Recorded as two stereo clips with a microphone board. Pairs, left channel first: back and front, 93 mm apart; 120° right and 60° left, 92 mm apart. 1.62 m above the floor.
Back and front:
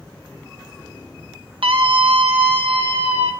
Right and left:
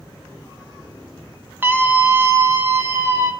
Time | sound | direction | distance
1.6 | a scream | 10° right | 1.8 m